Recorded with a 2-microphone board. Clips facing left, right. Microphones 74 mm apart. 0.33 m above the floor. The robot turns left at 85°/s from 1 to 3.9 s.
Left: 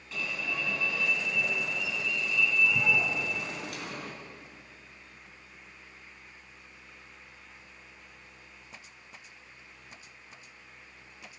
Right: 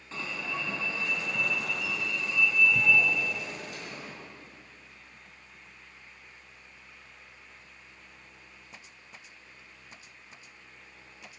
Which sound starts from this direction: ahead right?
An alarm, at 0.1 s.